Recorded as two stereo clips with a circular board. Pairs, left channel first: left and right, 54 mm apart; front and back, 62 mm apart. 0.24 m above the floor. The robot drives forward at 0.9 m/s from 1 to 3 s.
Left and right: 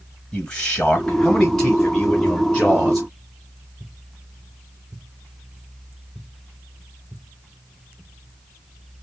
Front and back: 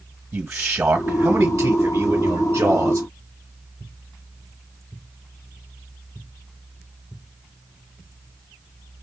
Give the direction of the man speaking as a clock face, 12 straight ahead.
7 o'clock.